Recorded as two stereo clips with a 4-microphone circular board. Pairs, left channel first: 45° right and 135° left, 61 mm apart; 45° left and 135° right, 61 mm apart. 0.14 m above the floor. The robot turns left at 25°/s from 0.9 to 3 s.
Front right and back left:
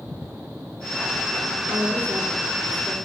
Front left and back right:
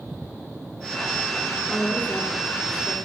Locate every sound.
1.7 s a woman speaking: 120° left, 4.5 m; by 3.0 s 85° left, 4.5 m